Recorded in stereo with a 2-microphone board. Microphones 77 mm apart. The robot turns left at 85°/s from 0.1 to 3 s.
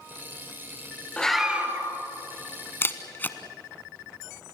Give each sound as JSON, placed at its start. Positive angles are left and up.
{"t": 1.2, "sound": "a scream", "azimuth_deg": 15, "distance_m": 4.0}
{"t": 2.8, "sound": "a camera shutter", "side_deg": 30, "distance_m": 1.2}